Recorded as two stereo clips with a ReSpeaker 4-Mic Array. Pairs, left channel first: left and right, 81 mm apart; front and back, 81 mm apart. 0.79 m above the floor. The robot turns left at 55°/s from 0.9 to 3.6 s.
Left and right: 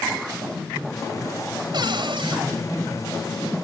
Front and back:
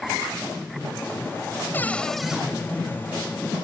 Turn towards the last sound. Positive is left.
turn(degrees=-165)